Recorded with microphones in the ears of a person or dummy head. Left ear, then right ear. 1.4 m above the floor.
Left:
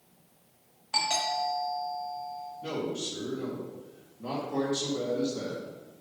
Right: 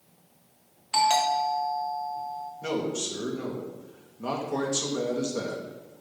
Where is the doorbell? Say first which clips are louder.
Right 6 dB; 30° right (ahead or behind), 1.3 m.